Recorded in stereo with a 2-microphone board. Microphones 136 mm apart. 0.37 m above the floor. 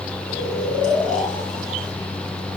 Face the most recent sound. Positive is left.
turn(degrees=65)  # may be behind; listen again after turning